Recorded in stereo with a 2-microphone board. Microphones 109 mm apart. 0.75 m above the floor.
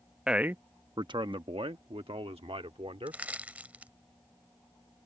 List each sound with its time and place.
0.3 s a man speaking: 5° right (ahead or behind); by 3.2 s 75° right (ahead or behind)
3.1 s crushing: 15° right (ahead or behind)